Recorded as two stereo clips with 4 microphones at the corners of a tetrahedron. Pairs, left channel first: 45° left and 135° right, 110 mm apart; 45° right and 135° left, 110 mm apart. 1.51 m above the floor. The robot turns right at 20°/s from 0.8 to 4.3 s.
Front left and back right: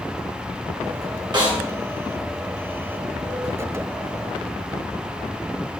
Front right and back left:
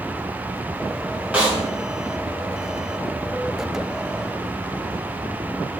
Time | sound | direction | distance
1.3 | a snare drum | 150° right | 0.9 m